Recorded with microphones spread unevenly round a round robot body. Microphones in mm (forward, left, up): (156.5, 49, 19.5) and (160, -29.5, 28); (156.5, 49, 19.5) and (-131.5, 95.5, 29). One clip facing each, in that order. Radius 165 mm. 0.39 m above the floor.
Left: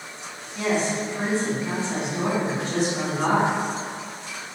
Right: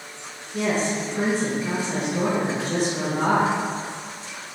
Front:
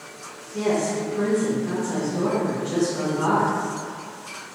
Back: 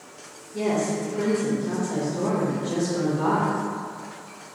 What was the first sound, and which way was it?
A woman speaking, 95° right.